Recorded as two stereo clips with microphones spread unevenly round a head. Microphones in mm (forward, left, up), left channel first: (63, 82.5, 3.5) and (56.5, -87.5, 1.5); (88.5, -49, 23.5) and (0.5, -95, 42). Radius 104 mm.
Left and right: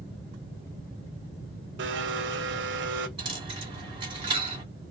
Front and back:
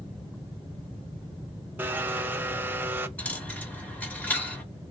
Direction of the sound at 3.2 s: 55° right.